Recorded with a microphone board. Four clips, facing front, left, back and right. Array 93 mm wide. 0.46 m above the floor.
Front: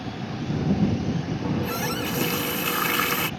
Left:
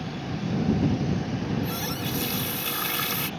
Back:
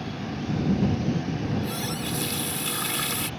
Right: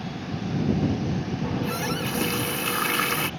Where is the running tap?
40° right.